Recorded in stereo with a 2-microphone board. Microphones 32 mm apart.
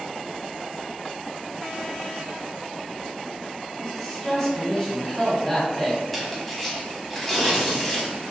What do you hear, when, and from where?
3.8 s a man speaking: 20° left (ahead or behind), 1.1 m
6.1 s tearing paper: 5° left (ahead or behind), 1.1 m